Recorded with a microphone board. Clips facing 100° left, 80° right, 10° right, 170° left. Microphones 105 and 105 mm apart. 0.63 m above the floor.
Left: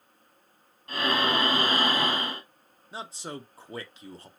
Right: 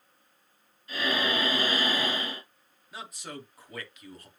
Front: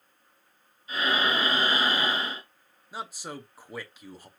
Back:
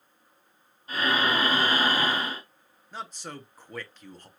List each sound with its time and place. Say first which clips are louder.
0.9 s breathing: left 3 dB, back 1 dB; 125° left, 3 m
2.9 s a man speaking: left 3 dB, front 1 dB; 65° left, 0.6 m